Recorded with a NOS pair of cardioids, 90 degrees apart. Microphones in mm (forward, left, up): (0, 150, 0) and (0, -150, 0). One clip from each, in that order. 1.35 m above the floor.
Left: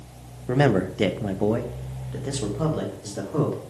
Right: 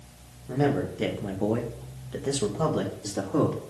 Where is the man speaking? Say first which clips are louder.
Left 5 dB; 60° left, 0.9 m; by 3.6 s 20° right, 2 m.